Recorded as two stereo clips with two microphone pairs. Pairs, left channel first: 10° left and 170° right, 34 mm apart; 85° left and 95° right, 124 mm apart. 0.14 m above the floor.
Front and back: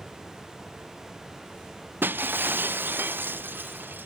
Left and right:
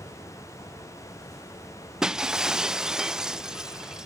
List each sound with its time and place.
2.0 s breaking glass: straight behind